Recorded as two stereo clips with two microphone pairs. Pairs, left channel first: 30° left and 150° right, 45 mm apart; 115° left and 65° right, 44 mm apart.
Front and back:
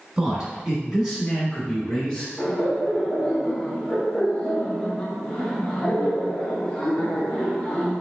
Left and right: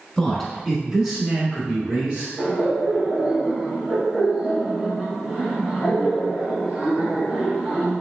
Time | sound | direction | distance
0.2 | a man speaking | straight behind | 1.2 m
2.4 | laughter | 40° right | 1.4 m